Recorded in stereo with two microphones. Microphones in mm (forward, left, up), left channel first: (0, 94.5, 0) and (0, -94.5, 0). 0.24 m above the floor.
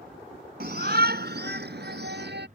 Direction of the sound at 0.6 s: 55° right (ahead or behind).